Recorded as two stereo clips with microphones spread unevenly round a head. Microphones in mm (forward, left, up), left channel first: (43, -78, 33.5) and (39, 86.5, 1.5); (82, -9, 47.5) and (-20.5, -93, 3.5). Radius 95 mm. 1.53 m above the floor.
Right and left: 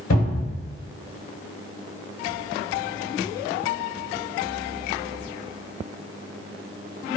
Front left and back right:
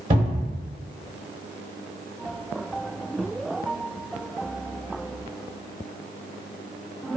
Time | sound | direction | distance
0.1 | a cupboard door | 105° right | 1.0 m